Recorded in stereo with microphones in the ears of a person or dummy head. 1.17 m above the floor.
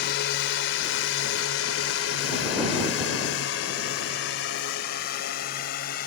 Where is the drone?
65° left (ahead or behind); by 6.1 s 55° left (ahead or behind).